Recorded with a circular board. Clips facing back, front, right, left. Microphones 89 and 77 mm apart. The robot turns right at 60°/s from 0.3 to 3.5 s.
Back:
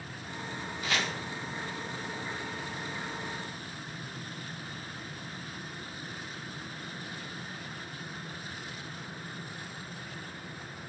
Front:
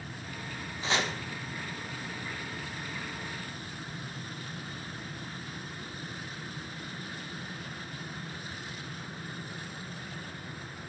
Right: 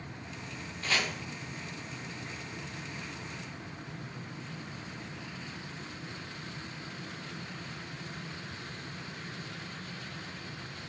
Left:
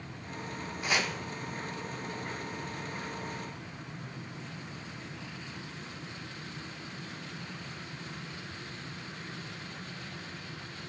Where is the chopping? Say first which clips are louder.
Front 2 dB, left 1 dB; 25° left, 0.7 m; by 1.1 s 45° left, 0.7 m.